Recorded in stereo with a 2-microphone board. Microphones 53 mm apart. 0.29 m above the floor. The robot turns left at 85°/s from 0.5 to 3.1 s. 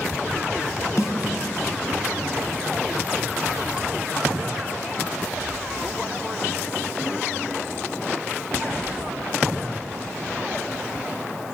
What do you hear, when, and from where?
1.0 s a snare drum: 75° left (ahead or behind), 0.9 m; by 1.1 s 65° left (ahead or behind), 0.9 m